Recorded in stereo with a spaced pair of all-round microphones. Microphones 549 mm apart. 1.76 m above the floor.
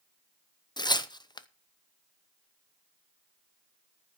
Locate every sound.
0.8 s tearing paper: 10° left (ahead or behind), 0.7 m